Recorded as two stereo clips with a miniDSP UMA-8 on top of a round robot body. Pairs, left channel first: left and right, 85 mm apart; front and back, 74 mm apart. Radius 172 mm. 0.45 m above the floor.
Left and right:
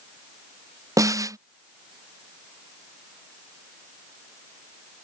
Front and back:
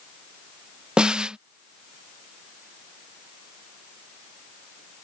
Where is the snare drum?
105° right.